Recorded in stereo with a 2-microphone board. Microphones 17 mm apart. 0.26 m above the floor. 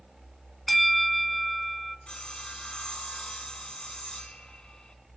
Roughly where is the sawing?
Left.